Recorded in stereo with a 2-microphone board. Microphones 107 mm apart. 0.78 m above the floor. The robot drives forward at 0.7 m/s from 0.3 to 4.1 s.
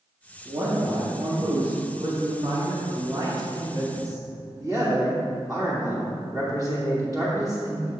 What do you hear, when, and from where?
0.5 s a man speaking: 50° right (ahead or behind), 1.9 m; by 7.9 s 35° right (ahead or behind), 2.5 m